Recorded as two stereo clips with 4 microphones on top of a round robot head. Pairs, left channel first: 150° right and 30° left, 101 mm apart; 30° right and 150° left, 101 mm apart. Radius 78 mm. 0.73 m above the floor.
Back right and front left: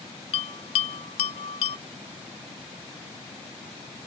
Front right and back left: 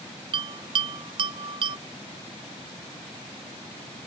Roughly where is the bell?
Behind.